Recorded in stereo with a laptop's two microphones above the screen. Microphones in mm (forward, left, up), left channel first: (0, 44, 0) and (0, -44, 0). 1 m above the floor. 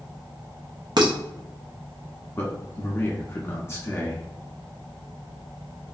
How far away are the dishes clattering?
About 0.7 m.